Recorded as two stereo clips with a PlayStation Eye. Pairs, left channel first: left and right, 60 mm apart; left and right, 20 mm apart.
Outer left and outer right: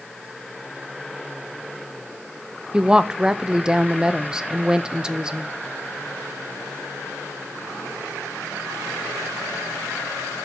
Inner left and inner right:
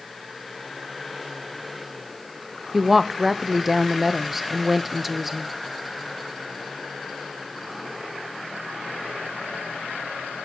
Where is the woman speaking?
10° right (ahead or behind), 0.7 m.